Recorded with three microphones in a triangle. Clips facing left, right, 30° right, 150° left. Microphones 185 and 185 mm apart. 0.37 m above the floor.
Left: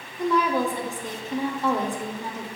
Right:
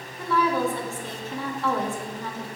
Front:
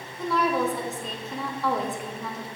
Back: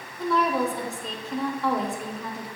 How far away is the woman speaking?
About 0.8 m.